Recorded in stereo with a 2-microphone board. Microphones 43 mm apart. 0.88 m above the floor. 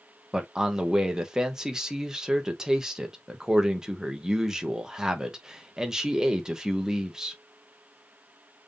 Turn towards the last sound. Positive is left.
turn(degrees=-15)  # may be behind; listen again after turning